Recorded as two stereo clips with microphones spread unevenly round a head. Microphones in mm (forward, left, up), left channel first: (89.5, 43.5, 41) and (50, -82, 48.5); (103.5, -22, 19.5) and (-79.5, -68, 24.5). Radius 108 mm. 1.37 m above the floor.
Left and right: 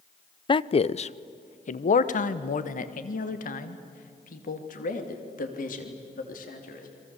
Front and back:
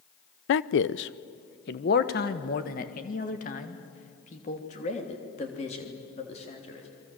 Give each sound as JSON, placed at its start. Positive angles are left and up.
{"t": 0.5, "sound": "a man speaking", "azimuth_deg": 20, "distance_m": 0.6}